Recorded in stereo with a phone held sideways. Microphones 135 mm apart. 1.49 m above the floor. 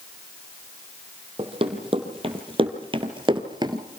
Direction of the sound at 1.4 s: 40° right (ahead or behind).